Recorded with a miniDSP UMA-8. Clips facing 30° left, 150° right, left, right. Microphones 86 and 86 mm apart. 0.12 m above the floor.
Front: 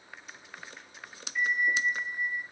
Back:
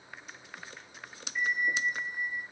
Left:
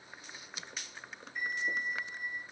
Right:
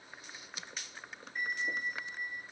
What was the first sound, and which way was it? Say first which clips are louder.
A bell: front 2 dB, left 1 dB; 70° right.